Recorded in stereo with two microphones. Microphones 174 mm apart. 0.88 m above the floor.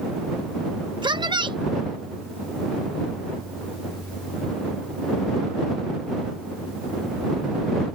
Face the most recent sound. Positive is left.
turn(degrees=-25)  # may be behind; listen again after turning